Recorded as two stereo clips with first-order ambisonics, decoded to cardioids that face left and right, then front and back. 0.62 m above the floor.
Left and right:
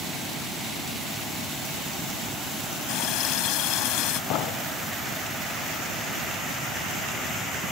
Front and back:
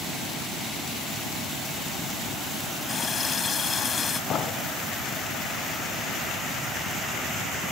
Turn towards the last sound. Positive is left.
turn(degrees=60)